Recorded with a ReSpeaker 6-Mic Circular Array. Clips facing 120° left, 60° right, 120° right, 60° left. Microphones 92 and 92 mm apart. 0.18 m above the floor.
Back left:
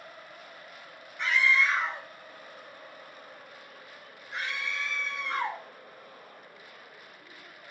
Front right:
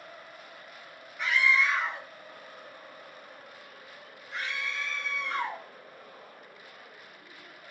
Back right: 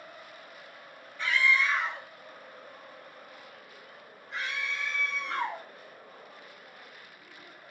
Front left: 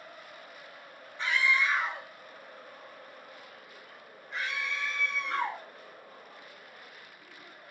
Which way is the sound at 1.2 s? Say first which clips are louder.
Even, back right 1 dB; 20° left.